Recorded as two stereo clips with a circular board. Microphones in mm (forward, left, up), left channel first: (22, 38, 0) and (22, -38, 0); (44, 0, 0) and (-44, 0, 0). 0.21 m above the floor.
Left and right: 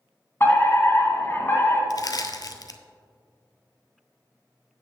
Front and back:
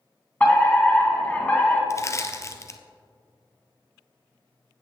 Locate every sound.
0.4 s a fire alarm: 60° left, 2.5 m
1.9 s crushing: 55° left, 0.7 m